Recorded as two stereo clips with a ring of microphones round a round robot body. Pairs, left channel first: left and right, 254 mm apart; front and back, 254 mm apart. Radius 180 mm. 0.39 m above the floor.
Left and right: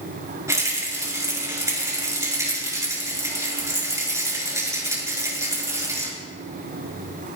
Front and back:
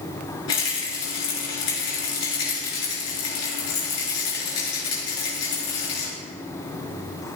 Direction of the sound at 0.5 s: 15° right.